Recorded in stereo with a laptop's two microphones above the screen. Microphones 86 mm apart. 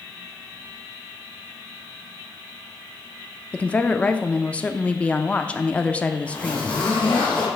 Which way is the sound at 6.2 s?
10° left (ahead or behind).